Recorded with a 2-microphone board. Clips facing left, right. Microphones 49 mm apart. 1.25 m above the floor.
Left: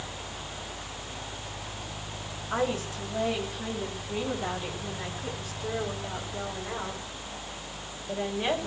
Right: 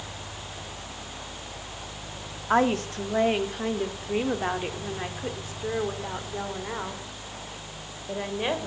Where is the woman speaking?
60° right (ahead or behind), 2.5 m; by 8.7 s 20° right (ahead or behind), 4.5 m.